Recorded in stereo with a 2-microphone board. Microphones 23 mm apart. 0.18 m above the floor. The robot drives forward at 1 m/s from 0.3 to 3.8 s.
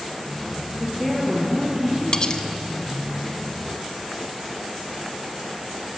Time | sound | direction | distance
0.8 | a woman speaking | 5° right (ahead or behind) | 4 m
2.1 | cutlery clinking | 35° left (ahead or behind) | 0.7 m